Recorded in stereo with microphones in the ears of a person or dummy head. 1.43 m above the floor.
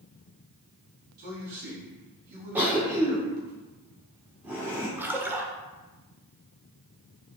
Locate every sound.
1.2 s a man speaking: 50° right (ahead or behind), 2.5 m
2.5 s a cough: 10° right (ahead or behind), 1.4 m
5.0 s a splash: 10° right (ahead or behind), 1.2 m